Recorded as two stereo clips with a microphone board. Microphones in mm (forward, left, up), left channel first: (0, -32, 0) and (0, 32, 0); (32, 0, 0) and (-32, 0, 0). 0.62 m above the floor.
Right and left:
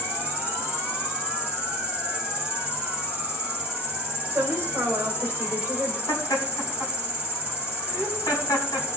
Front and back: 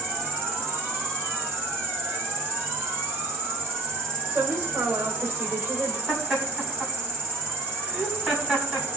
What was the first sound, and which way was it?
An insect, 155° left.